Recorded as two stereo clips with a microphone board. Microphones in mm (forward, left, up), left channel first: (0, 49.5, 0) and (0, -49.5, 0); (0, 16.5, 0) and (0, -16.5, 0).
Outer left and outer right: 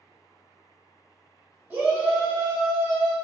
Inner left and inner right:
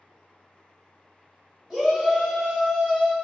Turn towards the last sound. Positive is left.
turn(degrees=-30)  # may be behind; listen again after turning